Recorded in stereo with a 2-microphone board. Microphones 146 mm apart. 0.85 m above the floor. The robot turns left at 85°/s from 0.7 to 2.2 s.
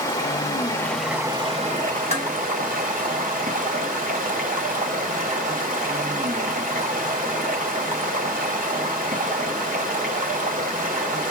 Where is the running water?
25° left, 1.2 m; by 11.3 s 105° right, 1.2 m.